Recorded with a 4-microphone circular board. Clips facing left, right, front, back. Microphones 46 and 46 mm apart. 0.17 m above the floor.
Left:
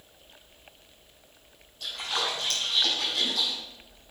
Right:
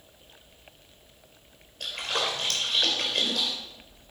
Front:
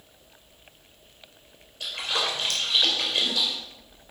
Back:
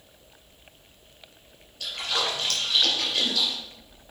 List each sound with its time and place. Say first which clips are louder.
1.8 s a splash: right 1 dB, even; 70° right, 3 m